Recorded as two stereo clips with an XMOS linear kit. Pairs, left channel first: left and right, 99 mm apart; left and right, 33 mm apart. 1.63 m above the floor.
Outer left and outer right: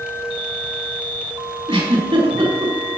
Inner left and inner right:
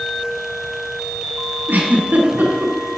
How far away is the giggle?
About 4 m.